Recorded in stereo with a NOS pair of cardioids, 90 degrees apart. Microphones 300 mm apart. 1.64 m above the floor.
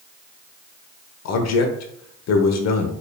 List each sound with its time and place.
1.2 s a man speaking: 60° left, 0.9 m